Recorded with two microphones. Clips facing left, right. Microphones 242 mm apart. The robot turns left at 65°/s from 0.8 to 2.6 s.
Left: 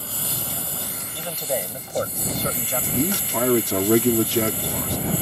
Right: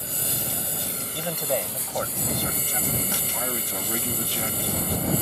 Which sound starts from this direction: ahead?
A lawn mower, at 0.0 s.